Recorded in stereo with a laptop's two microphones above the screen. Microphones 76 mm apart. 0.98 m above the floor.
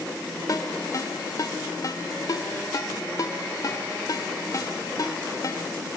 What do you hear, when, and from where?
0.5 s a ringtone: 45° left (ahead or behind), 1.3 m